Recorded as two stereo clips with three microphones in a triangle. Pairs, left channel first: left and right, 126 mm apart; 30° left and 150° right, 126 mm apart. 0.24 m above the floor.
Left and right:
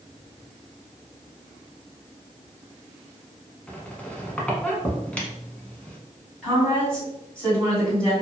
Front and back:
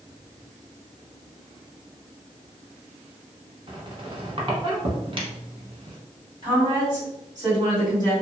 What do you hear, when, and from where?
3.7 s a squeak: 170° left, 0.7 m
6.4 s a woman speaking: 170° left, 1.8 m